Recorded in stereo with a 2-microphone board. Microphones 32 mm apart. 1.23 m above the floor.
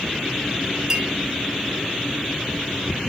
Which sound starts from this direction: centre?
A clink, at 0.9 s.